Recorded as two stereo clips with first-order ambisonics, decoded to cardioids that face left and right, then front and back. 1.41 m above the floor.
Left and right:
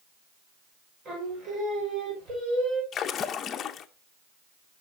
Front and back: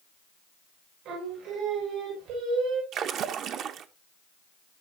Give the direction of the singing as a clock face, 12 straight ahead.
5 o'clock.